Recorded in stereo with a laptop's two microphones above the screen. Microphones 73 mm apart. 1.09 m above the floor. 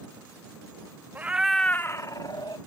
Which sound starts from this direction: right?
A cat meowing, at 1.1 s.